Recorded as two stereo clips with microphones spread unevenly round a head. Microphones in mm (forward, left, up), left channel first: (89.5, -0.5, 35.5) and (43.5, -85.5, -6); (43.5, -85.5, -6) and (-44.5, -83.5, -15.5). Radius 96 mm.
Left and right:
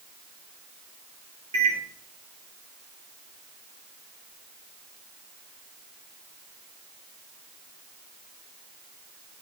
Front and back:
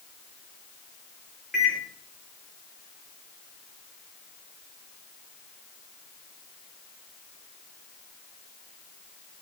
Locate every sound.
1.5 s a microwave: 95° right, 4 m